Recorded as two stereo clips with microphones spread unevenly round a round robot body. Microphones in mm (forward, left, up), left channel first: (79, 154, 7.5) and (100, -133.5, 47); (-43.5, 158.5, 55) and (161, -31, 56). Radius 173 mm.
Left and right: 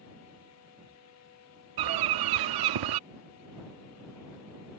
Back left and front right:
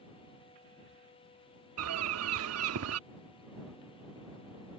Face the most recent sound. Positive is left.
turn(degrees=-85)